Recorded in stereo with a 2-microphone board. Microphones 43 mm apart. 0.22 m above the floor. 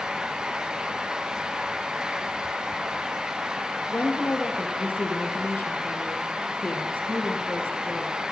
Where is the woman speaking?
45° left (ahead or behind), 4 m.